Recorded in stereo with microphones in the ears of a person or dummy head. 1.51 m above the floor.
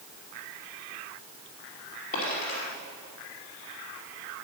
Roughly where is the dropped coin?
Left.